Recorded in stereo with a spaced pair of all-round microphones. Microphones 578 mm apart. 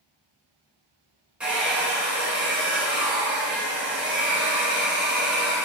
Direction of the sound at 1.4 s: Centre (ahead or behind).